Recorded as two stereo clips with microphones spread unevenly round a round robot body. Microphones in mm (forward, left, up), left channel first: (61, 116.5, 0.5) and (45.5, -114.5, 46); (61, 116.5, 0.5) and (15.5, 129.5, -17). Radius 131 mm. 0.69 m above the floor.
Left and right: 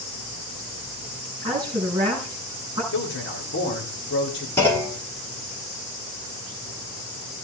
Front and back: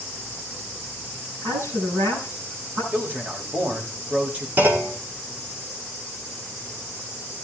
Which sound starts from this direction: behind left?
A man speaking, at 2.9 s.